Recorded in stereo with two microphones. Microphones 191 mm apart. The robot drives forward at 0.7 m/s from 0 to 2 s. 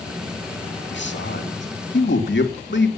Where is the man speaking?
80° left, 2.5 m.